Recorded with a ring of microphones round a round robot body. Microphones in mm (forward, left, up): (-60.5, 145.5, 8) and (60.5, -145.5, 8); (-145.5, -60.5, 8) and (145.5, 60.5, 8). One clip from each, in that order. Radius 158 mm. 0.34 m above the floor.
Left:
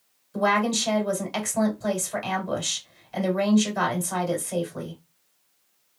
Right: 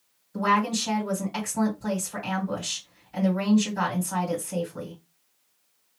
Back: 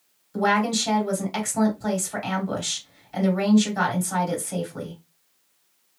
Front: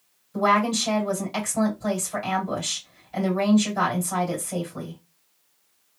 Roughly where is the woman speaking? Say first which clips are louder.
Left 1 dB, front 1 dB; behind left.